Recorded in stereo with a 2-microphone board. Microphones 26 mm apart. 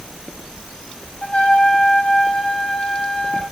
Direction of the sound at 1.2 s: 50° left (ahead or behind).